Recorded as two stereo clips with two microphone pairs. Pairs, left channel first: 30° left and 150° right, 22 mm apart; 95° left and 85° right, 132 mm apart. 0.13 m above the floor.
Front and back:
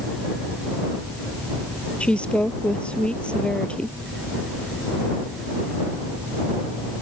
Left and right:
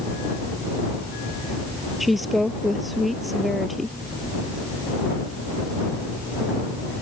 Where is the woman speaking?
5° left.